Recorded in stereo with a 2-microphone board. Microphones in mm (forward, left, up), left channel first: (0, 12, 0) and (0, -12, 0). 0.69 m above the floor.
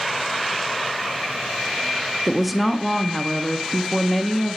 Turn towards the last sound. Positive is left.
turn(degrees=-5)  # may be behind; listen again after turning